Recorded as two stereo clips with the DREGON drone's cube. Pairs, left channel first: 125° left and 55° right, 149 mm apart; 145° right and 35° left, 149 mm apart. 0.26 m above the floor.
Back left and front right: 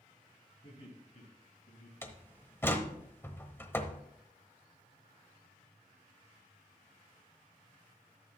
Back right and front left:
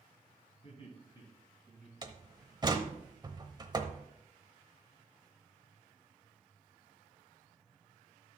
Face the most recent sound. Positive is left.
turn(degrees=60)